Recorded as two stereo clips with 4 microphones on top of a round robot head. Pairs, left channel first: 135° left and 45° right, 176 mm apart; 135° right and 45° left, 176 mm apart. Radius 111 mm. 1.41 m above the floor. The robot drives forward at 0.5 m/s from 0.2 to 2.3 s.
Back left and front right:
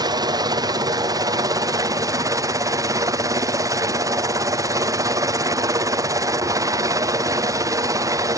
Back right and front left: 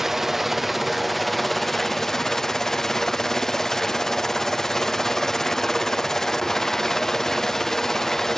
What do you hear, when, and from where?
0.0 s a helicopter: 40° right; by 8.4 s 50° right